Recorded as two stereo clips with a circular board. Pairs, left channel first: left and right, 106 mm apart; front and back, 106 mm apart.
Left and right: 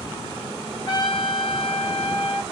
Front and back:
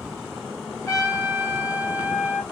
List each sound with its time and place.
0.9 s a trumpet: 55° left, 2.5 m